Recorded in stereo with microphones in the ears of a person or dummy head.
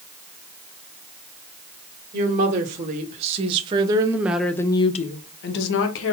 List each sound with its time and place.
2.1 s a woman speaking: 50° right (ahead or behind), 2 m; by 6.1 s 80° left, 1.3 m